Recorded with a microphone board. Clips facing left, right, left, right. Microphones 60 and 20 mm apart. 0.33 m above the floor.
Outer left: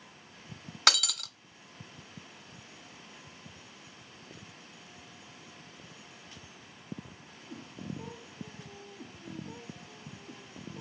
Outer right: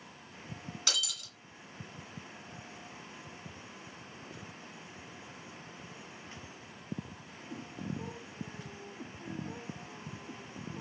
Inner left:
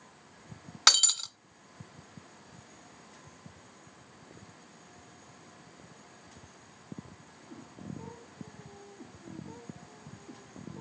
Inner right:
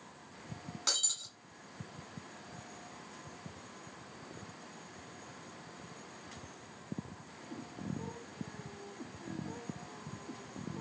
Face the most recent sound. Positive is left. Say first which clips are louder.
# outer left 10 dB, inner left 11 dB
turn(degrees=70)  # may be behind; listen again after turning